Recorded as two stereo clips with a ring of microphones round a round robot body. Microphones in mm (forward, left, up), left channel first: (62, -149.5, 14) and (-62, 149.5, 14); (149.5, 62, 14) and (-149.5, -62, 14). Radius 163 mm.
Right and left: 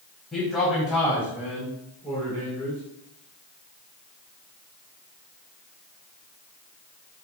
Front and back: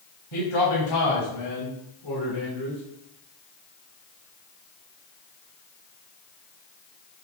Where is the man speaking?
20° left, 4 m; by 2.8 s 30° left, 7 m.